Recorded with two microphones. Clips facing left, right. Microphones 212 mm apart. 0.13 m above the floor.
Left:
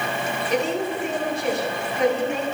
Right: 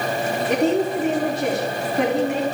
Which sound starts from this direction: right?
A woman speaking, at 0.5 s.